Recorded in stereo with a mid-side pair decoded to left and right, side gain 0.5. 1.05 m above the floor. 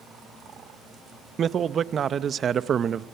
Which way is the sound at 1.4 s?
45° right.